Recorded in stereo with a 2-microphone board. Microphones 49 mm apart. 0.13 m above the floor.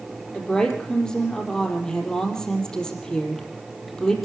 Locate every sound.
0.3 s a woman speaking: 15° left (ahead or behind), 5 m